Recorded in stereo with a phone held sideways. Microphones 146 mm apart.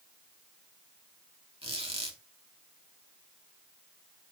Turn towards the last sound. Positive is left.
turn(degrees=-40)  # may be behind; listen again after turning